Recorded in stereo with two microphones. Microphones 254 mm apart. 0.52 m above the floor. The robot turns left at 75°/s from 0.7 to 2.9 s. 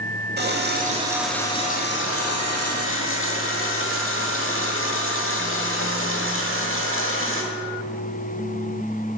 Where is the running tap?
140° right, 1.1 m; by 7.4 s 55° left, 1.1 m.